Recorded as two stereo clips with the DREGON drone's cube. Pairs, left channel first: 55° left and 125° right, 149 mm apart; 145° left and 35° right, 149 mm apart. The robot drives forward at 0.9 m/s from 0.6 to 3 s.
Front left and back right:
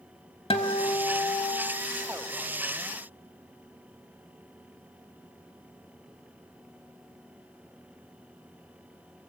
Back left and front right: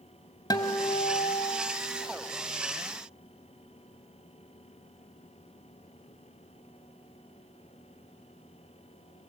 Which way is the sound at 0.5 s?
90° left.